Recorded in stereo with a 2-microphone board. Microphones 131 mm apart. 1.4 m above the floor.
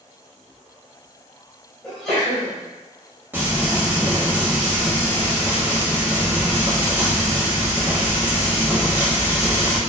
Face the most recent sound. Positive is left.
turn(degrees=-15)  # may be behind; listen again after turning